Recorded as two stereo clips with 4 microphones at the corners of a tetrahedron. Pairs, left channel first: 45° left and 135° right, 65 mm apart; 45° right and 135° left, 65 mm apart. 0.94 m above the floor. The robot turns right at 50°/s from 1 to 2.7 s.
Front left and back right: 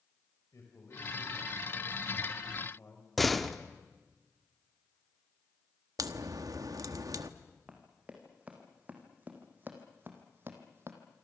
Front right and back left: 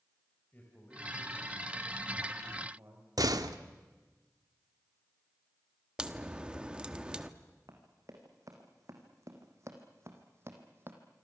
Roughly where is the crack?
Behind right.